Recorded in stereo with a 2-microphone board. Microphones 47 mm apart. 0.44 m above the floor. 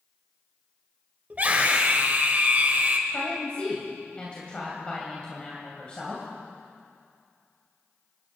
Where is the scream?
40° right (ahead or behind), 2.5 m.